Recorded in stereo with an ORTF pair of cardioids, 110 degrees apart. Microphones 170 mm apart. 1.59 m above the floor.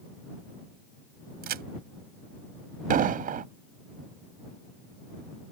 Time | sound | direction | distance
1.4 | a crack | 60° right | ?
2.9 | an explosion | 60° right | ?